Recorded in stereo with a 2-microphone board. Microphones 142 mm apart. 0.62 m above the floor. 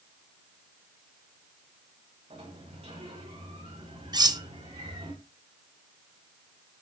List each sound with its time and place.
2.3 s a sliding door: 50° right (ahead or behind), 4.5 m
4.1 s cutlery clinking: 30° right (ahead or behind), 0.5 m